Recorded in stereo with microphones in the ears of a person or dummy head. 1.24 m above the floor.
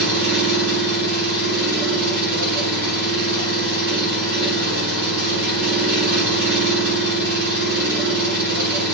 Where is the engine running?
65° right (ahead or behind), 1.6 m.